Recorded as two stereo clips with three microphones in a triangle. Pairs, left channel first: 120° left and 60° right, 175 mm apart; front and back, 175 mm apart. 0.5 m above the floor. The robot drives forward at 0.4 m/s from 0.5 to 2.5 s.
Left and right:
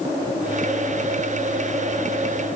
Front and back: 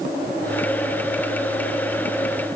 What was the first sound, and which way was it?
Only background noise.